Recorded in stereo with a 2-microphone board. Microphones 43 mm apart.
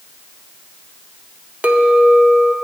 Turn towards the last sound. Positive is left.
turn(degrees=-40)  # may be behind; listen again after turning